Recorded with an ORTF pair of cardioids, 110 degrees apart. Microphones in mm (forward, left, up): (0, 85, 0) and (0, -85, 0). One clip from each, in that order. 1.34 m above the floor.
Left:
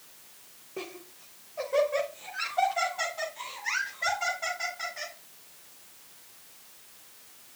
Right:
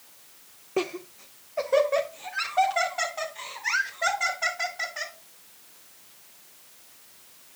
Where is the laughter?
55° right, 0.5 m.